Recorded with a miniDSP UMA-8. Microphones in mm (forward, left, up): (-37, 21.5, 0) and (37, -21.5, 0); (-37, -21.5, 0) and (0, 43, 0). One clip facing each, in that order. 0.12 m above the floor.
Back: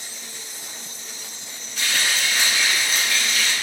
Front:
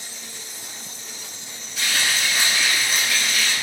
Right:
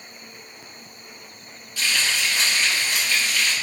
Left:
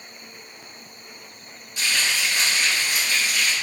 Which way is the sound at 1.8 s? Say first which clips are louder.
Even, even; 45° left.